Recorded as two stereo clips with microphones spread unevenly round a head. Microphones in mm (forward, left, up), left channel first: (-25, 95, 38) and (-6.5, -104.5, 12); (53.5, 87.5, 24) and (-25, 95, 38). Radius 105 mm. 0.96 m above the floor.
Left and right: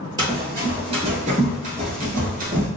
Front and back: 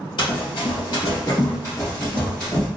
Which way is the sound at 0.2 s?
10° right.